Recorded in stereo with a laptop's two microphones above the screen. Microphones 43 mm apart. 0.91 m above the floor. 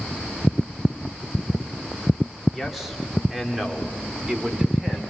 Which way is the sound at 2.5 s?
Centre (ahead or behind).